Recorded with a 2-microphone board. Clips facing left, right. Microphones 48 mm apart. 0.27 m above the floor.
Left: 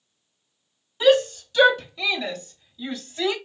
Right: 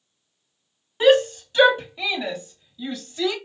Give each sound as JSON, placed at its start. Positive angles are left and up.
{"t": 1.0, "sound": "a shout", "side_deg": -40, "distance_m": 1.9}